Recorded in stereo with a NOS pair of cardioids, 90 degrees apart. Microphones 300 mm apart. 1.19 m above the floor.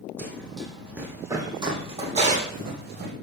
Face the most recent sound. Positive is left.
turn(degrees=-35)